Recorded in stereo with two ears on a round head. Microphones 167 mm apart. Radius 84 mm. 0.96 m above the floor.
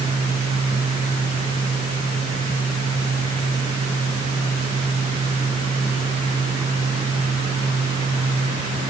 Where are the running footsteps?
No running footsteps in this recording.